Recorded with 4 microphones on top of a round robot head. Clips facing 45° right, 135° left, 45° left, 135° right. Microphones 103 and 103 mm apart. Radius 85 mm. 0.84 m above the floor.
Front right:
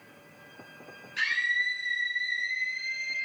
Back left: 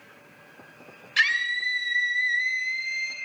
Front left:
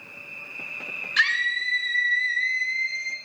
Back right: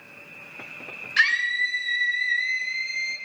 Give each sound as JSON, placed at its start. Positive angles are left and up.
{"t": 1.2, "sound": "a scream", "azimuth_deg": 130, "distance_m": 4.0}